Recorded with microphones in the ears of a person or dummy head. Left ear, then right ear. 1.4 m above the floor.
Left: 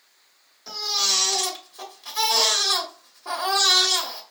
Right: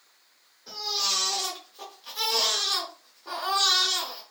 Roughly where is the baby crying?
Left.